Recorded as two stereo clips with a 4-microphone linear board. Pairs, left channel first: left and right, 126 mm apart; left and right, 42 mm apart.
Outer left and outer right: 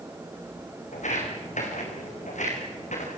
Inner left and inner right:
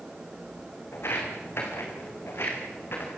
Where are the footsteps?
75° left (ahead or behind), 6 m; by 3.1 s 70° left (ahead or behind), 6 m.